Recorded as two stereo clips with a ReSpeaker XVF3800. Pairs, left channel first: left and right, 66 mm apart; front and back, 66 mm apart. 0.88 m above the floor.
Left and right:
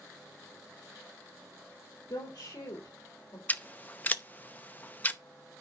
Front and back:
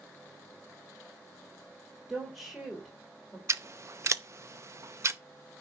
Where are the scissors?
150° left, 0.6 m.